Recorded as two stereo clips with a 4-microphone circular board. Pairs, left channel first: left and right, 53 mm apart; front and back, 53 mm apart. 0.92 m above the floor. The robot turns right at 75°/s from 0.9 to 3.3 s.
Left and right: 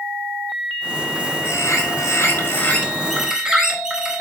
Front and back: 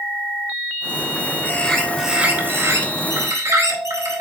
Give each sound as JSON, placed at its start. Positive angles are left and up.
{"t": 1.4, "sound": "a bird", "azimuth_deg": 55, "distance_m": 3.5}